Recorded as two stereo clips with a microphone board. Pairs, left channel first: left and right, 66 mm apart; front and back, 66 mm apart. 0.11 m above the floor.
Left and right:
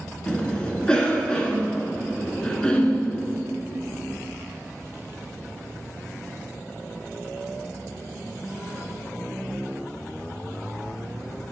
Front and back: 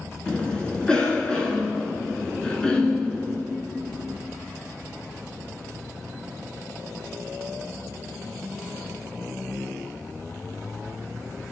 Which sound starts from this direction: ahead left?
A cough, at 0.3 s.